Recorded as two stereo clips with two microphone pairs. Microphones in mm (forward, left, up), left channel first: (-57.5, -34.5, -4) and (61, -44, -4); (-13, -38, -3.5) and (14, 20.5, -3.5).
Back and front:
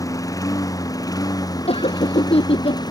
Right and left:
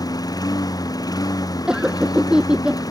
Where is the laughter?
145° left.